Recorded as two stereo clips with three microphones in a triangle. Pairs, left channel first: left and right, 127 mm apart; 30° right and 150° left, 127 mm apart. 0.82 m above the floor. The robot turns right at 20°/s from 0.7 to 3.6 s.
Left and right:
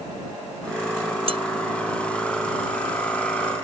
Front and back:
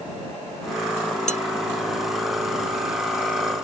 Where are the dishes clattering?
50° right; by 1.4 s 45° right.